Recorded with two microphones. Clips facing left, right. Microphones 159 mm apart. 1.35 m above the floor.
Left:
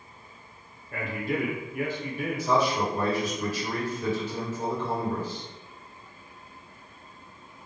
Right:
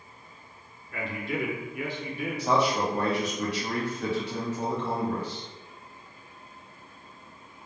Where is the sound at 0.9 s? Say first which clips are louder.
Left 2 dB; 45° left (ahead or behind), 0.7 m.